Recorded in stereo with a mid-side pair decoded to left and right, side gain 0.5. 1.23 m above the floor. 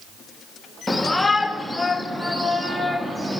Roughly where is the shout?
Ahead.